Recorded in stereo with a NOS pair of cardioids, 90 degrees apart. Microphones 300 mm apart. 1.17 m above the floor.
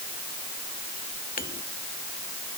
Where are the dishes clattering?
30° left.